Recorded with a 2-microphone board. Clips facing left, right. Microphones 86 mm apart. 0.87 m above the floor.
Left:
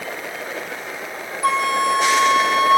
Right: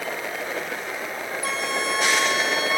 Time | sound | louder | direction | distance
1.4 | a flute | left 10 dB | 50° left (ahead or behind) | 1.1 m